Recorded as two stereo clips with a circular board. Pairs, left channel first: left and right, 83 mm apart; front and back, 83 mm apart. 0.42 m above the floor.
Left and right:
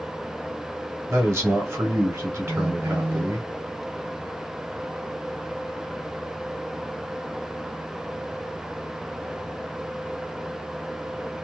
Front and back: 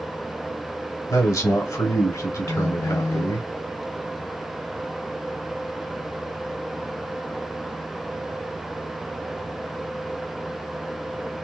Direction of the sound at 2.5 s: 25° right.